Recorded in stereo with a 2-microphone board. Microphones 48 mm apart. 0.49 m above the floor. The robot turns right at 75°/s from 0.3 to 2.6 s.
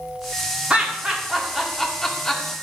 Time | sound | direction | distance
0.7 | laughter | 25° right (ahead or behind) | 1.2 m